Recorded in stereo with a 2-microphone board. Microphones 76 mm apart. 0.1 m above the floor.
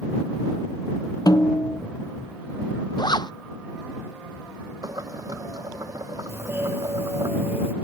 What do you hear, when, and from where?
1.3 s a snare drum: 60° left (ahead or behind)
3.0 s a zipper: 70° left (ahead or behind)
4.8 s boiling: 50° right (ahead or behind)
6.3 s a doorbell: 30° right (ahead or behind)